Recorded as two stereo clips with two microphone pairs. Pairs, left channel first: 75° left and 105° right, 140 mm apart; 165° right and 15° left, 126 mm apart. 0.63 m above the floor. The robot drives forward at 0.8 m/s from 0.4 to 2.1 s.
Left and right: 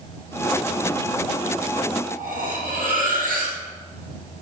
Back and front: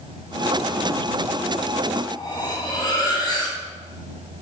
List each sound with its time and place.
2.0 s cutlery clinking: 105° right, 2.5 m; by 3.6 s 110° right, 2.5 m